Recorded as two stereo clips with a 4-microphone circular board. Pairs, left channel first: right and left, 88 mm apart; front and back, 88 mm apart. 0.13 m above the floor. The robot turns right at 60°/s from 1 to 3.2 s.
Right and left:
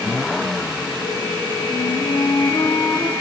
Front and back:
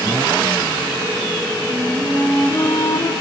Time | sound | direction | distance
1.7 | a flute | 110° right | 1.0 m